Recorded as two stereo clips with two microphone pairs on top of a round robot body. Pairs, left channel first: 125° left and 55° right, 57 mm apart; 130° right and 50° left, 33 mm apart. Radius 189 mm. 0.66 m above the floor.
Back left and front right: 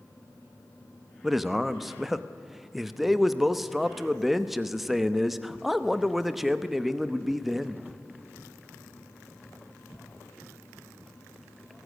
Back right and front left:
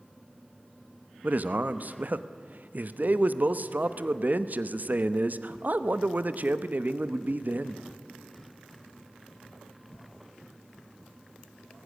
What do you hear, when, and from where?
1.2 s a man speaking: 25° left, 1.1 m